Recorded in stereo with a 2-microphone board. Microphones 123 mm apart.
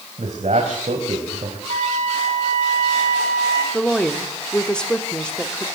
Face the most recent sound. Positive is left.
turn(degrees=5)  # may be behind; listen again after turning